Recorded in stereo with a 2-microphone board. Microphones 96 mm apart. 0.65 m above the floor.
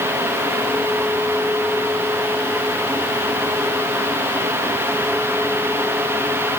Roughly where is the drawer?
No drawer in this recording.